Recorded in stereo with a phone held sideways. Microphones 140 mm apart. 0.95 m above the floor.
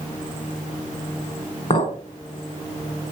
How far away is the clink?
About 2 m.